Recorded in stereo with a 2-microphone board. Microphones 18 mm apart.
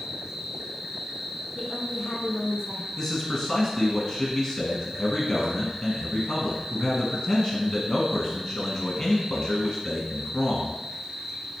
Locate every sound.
0.0 s an insect: 25° right (ahead or behind), 1.2 m
1.6 s a woman speaking: 15° left (ahead or behind), 1.1 m
3.0 s a man speaking: 25° left (ahead or behind), 1.2 m